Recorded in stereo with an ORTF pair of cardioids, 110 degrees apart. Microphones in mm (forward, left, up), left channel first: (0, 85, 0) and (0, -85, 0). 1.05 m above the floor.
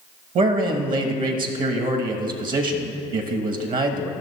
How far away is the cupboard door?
I don't hear a cupboard door.